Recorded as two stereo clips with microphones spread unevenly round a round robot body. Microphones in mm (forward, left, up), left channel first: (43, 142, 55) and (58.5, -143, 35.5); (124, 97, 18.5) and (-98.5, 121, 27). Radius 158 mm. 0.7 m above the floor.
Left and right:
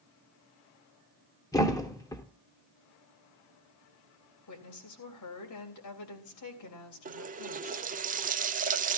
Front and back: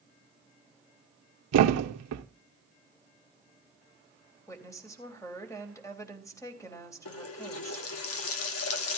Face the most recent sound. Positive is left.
turn(degrees=-25)